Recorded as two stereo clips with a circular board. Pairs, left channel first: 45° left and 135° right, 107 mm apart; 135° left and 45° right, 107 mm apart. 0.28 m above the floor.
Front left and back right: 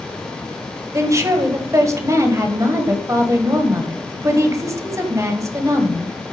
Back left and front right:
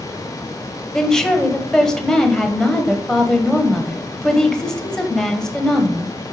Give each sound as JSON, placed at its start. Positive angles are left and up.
{"t": 0.9, "sound": "a woman speaking", "azimuth_deg": -145, "distance_m": 1.4}